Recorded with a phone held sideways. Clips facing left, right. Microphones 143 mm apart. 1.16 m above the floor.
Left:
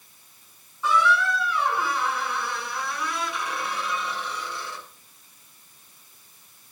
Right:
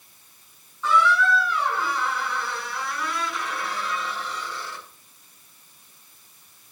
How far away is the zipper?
I don't hear a zipper.